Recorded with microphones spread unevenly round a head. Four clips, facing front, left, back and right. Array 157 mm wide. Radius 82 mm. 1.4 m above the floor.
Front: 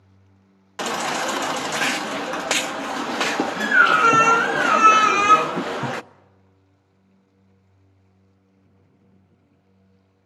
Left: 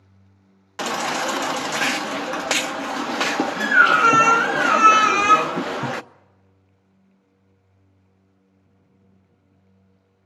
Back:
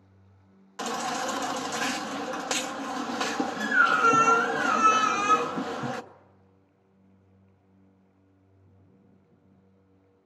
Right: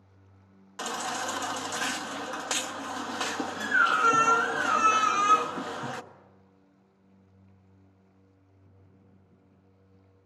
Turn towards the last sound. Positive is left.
turn(degrees=50)